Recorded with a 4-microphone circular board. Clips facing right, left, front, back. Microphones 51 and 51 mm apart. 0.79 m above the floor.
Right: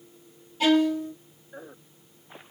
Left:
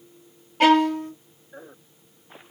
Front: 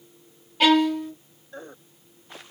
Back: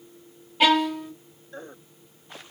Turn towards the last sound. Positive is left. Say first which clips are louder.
# left 4 dB, front 2 dB
turn(degrees=95)